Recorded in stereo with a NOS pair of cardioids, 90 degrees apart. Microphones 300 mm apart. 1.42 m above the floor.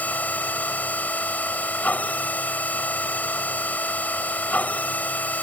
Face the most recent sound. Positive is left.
turn(degrees=5)